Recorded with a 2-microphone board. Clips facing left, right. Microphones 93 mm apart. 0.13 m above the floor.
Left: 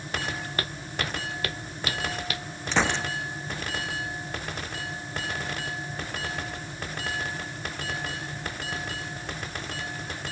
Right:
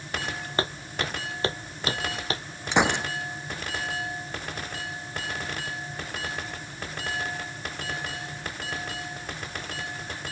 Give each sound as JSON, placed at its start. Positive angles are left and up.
{"t": 0.6, "sound": "footsteps", "side_deg": -25}
{"t": 2.7, "sound": "a gunshot", "side_deg": -15}